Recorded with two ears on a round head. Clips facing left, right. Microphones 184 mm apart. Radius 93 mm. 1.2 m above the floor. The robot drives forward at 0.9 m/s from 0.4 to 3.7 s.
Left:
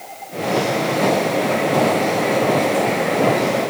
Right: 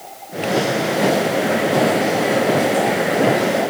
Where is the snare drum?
I don't hear a snare drum.